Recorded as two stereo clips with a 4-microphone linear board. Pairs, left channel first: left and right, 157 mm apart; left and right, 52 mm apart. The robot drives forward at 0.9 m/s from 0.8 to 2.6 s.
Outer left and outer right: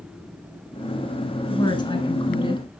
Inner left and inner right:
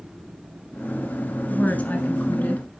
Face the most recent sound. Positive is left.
turn(degrees=30)  # may be behind; listen again after turning